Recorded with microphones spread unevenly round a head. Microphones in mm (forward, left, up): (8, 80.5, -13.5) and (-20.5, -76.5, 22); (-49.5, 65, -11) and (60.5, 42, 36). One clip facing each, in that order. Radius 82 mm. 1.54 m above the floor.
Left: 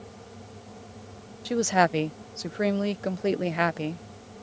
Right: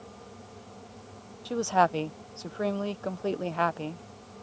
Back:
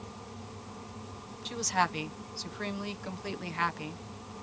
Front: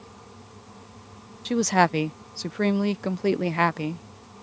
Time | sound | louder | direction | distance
1.4 | a woman speaking | left 2 dB, front 10 dB | 10° left | ?